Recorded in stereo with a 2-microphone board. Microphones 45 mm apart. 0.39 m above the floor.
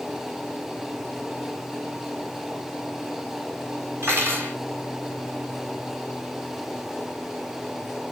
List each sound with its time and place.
4.0 s cutlery clinking: 60° right (ahead or behind), 1.6 m